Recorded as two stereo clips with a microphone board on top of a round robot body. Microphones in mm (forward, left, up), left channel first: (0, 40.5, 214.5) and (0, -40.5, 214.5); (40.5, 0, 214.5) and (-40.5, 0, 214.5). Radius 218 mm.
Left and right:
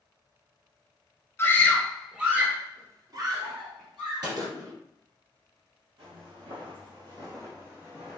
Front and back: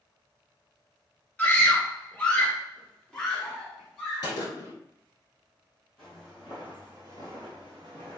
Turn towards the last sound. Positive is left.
turn(degrees=-170)